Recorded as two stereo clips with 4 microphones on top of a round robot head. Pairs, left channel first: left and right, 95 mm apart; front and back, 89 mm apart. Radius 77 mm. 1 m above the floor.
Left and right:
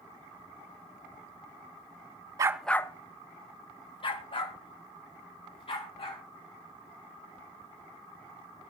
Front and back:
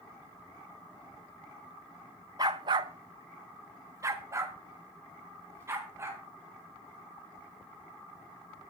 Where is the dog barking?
125° right, 0.5 m; by 6.2 s 120° left, 5 m.